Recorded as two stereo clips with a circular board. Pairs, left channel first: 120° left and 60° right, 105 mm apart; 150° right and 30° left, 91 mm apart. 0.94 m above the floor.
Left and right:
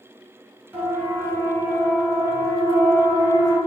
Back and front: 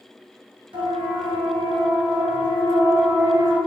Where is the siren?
15° left, 7.5 m; by 3.6 s 10° right, 10.5 m.